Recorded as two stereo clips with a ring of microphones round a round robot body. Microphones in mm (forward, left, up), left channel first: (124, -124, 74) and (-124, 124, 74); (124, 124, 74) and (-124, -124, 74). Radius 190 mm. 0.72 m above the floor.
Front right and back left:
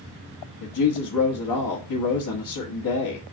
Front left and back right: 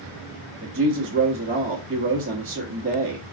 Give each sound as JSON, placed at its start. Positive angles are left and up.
{"t": 0.6, "sound": "a woman speaking", "azimuth_deg": -70, "distance_m": 1.3}